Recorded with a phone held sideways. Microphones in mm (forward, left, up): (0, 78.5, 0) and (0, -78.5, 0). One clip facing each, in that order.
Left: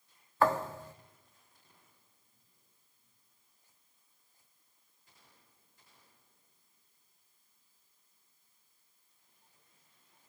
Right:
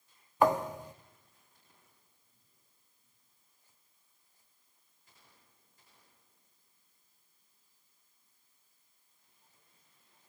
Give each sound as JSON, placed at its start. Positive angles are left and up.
{"t": 0.4, "sound": "a thud", "side_deg": -15, "distance_m": 1.1}